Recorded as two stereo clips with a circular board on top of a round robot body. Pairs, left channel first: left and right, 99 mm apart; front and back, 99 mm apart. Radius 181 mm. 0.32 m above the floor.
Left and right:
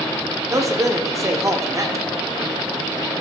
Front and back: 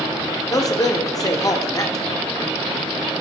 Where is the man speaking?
40° right, 1.8 m.